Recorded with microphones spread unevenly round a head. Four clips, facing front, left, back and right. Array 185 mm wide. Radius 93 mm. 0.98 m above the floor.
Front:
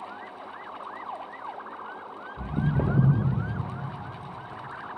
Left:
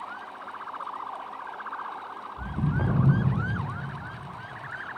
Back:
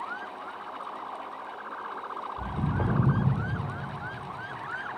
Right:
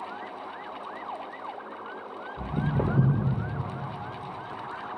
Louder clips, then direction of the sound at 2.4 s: Right 2 dB, front 4 dB; 25° right.